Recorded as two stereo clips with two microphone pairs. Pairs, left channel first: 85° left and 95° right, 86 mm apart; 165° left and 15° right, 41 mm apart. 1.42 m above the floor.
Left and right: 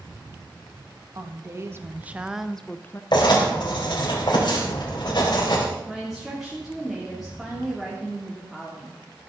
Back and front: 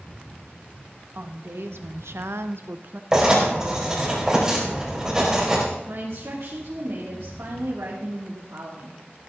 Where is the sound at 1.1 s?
45° right, 1.8 m; by 3.0 s 30° left, 0.8 m.